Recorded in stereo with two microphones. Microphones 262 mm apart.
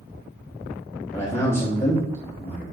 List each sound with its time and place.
1.1 s a man speaking: 10° left (ahead or behind), 0.9 m